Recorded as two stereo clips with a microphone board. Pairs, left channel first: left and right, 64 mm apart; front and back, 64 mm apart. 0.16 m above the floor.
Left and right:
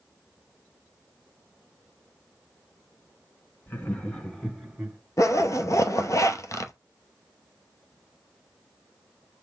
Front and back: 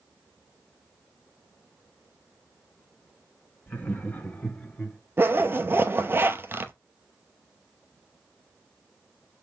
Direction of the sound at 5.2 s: 125° left.